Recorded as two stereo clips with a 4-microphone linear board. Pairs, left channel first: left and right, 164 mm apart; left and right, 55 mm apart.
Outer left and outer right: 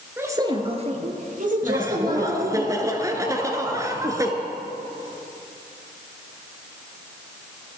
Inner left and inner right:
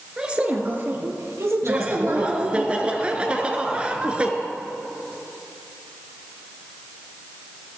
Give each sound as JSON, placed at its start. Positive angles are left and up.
{"t": 0.2, "sound": "a woman speaking", "side_deg": -15, "distance_m": 1.2}
{"t": 1.6, "sound": "laughter", "side_deg": -20, "distance_m": 1.1}